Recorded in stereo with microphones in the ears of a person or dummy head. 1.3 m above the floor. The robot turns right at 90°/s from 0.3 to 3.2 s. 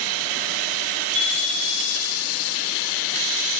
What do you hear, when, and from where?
1.1 s a bicycle bell: 105° right, 6.5 m; by 2.2 s 5° right, 6.5 m